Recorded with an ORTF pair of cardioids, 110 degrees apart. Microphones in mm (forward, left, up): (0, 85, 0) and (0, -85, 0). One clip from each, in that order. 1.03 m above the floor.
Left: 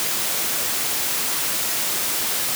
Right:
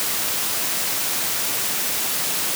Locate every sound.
Only background noise.